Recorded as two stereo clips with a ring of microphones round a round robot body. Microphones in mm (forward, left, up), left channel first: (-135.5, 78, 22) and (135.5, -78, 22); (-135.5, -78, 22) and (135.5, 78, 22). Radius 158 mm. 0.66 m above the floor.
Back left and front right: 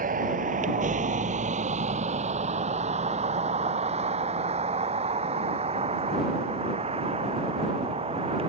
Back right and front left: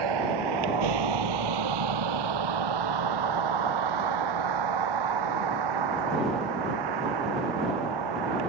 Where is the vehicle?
35° left; by 8.5 s 45° left.